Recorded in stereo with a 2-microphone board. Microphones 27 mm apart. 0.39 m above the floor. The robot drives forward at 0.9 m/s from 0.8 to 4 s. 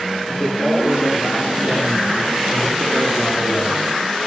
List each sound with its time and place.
0.3 s a man speaking: 70° left (ahead or behind), 5.5 m; by 3.9 s 50° left (ahead or behind), 7 m